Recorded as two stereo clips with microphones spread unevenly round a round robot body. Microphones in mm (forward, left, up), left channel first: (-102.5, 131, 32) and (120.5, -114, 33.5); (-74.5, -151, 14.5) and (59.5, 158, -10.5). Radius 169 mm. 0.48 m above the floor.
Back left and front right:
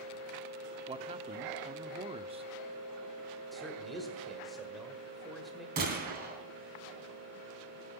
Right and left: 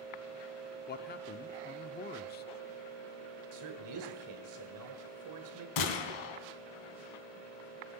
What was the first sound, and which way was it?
A man speaking, 95° right.